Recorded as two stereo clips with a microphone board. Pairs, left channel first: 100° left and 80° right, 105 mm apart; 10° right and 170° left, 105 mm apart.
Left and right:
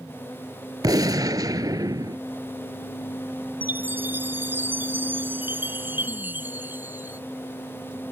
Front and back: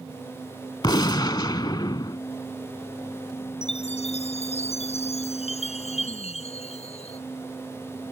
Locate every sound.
0.8 s a gunshot: 45° right
3.6 s a chime: 5° right